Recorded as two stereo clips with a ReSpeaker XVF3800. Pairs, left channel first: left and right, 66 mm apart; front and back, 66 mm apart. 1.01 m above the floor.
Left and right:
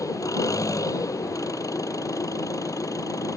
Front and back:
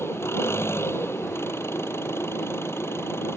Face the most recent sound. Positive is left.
turn(degrees=50)